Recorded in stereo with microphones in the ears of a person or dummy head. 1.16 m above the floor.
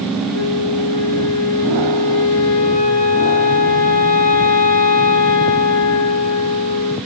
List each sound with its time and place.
0.3 s a flute: 65° left (ahead or behind), 1.6 m